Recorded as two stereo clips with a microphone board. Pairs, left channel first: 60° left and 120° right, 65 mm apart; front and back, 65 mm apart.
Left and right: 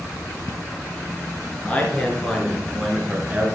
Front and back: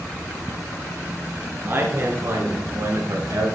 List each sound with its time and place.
1.6 s a man speaking: 130° left, 3 m; by 3.5 s 175° left, 2 m